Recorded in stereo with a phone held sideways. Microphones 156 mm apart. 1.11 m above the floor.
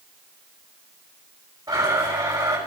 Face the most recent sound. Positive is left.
turn(degrees=-25)  # may be behind; listen again after turning